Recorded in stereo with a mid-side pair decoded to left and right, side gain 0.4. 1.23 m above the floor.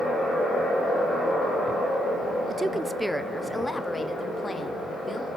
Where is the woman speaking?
40° right, 0.5 m; by 5.3 s 30° left, 2.5 m.